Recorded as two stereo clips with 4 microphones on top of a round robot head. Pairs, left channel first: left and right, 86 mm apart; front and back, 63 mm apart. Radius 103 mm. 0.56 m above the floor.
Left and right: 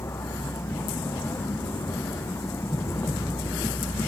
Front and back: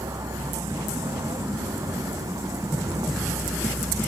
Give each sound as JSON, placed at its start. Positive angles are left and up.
{"t": 0.0, "sound": "a vehicle", "azimuth_deg": 155}